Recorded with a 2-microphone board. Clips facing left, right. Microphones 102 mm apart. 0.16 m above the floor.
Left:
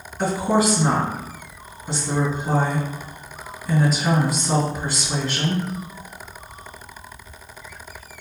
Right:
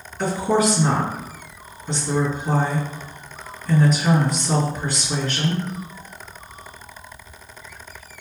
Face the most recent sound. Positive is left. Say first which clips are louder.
# even
turn(degrees=5)  # may be behind; listen again after turning